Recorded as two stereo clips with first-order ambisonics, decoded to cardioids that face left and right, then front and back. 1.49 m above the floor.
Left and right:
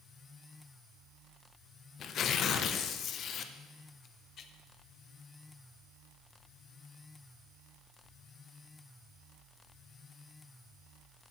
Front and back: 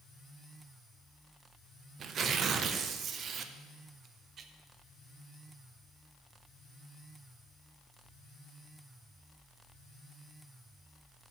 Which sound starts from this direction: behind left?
Tearing paper, at 2.0 s.